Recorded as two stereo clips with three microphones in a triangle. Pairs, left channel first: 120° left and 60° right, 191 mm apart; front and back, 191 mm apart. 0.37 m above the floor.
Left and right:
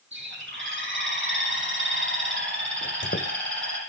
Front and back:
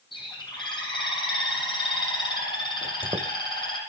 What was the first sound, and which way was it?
A bird, 65° right.